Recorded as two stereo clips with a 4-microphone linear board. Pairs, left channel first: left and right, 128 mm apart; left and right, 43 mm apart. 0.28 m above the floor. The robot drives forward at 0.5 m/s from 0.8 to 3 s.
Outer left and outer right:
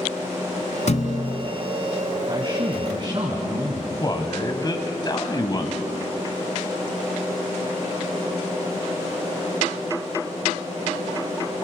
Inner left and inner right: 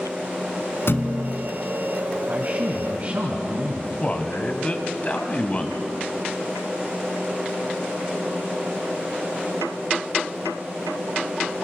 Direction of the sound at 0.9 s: 65° left (ahead or behind).